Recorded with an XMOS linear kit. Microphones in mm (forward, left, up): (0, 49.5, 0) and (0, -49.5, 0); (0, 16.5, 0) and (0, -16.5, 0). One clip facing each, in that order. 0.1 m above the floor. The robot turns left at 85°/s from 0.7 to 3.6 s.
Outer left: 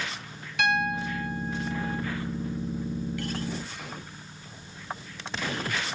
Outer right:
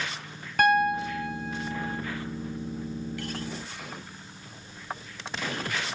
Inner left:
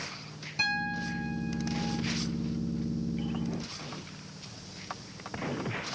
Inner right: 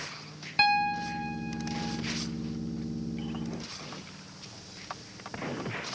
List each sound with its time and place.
0.6 s a piano: 45° right, 1.7 m; by 2.0 s 155° right, 1.7 m